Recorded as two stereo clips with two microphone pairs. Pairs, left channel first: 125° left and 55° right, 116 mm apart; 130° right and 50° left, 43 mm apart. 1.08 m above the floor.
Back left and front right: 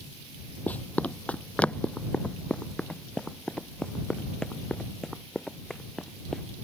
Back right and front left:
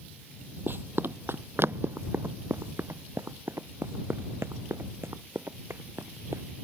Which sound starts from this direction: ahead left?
Running footsteps, at 0.7 s.